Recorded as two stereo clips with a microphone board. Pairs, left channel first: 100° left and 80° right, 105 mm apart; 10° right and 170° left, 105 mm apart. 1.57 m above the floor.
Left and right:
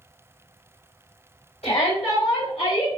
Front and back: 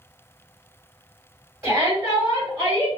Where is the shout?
100° left, 2.0 m; by 3.0 s 110° left, 1.2 m.